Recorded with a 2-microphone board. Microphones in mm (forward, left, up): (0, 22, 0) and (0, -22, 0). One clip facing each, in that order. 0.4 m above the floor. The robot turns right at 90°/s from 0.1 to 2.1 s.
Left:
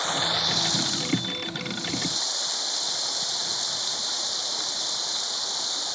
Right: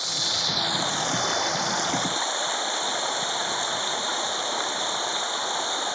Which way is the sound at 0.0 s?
145° left.